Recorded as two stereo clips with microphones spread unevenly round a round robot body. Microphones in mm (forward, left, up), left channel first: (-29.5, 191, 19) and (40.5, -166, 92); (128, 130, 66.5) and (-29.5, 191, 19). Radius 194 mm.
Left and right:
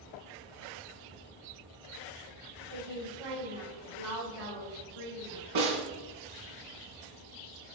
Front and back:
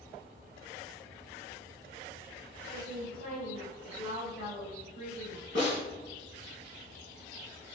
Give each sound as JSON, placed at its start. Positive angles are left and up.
{"t": 2.7, "sound": "a woman speaking", "azimuth_deg": -80, "distance_m": 3.0}
{"t": 5.5, "sound": "a snare drum", "azimuth_deg": -75, "distance_m": 4.0}